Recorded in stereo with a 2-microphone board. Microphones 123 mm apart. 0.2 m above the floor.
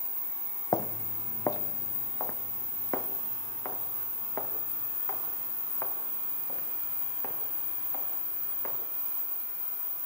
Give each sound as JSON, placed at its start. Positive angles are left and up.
{"t": 0.7, "sound": "footsteps", "side_deg": 35, "distance_m": 0.5}